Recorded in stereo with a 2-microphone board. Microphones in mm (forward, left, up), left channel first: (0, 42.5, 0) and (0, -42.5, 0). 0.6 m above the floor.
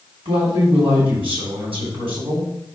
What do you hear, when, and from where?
0.2 s a man speaking: 80° right, 3.5 m